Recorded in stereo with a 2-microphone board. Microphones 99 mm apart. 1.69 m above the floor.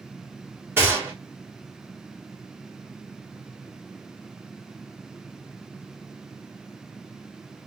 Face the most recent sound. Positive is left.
turn(degrees=-20)  # may be behind; listen again after turning